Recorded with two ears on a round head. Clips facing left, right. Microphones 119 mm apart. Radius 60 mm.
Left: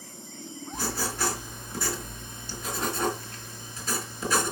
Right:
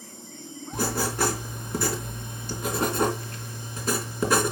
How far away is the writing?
About 3 m.